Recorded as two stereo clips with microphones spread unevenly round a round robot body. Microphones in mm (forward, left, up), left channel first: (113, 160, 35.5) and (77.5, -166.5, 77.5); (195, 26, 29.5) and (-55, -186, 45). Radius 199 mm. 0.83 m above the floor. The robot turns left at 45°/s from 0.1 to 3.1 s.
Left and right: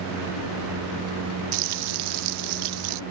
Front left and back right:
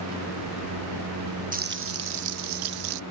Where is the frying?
70° right; by 3.0 s 140° right.